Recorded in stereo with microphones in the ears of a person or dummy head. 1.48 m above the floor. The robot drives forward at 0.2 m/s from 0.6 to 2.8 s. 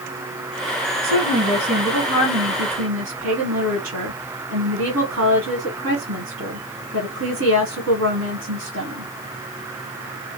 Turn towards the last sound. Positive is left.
turn(degrees=-75)  # may be behind; listen again after turning